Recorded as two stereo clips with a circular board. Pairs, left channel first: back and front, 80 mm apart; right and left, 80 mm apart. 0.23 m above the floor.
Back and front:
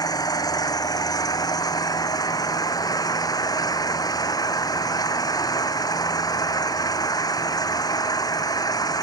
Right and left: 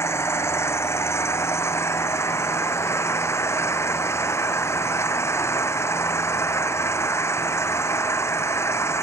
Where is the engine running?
145° right.